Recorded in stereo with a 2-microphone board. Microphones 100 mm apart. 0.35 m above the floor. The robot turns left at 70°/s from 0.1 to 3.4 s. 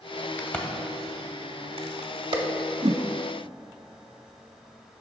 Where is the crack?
25° left (ahead or behind), 0.8 m; by 2.4 s 50° right (ahead or behind), 0.8 m.